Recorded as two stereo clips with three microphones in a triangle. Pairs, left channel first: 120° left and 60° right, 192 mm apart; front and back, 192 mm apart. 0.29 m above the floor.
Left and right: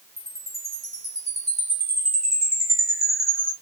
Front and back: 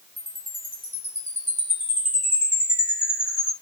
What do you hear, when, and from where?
0.2 s a chime: 75° right, 2 m